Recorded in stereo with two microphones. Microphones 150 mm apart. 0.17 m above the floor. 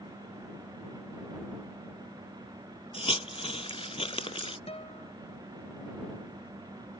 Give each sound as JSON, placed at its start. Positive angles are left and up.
{"t": 2.9, "sound": "a hiss", "side_deg": 40}
{"t": 4.7, "sound": "a guitar", "side_deg": 40}